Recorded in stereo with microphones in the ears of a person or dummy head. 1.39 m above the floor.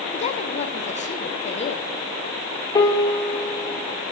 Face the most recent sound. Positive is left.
turn(degrees=25)  # may be behind; listen again after turning